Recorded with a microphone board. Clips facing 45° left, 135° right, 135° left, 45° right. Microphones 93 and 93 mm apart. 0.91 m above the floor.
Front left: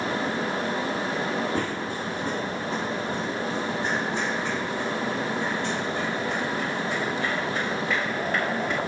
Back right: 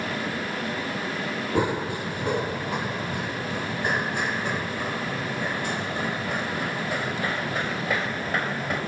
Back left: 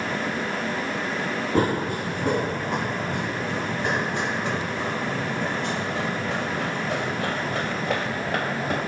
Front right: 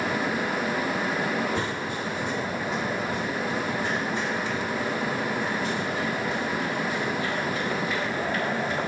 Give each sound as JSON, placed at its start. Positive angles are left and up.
{"t": 1.6, "sound": "running footsteps", "azimuth_deg": 155, "distance_m": 1.3}